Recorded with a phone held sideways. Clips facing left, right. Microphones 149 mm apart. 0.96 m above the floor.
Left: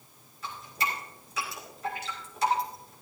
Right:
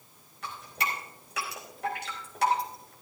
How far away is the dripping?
About 3.5 m.